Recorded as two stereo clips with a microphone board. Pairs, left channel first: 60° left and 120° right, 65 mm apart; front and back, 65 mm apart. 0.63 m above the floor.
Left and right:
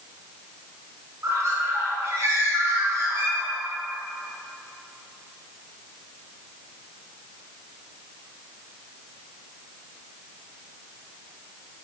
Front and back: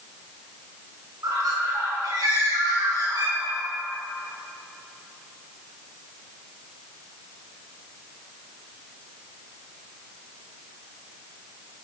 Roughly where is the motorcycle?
I don't hear a motorcycle.